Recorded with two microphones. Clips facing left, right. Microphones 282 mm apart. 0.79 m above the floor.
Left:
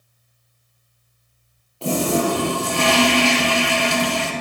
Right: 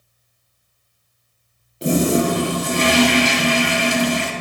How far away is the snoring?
I don't hear snoring.